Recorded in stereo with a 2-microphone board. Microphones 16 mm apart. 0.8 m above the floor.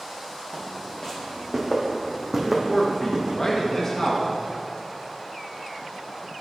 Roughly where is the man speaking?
Left.